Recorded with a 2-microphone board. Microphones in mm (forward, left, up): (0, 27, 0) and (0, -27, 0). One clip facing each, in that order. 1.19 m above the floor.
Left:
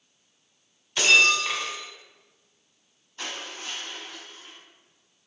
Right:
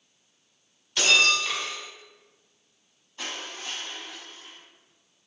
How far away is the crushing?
About 2 m.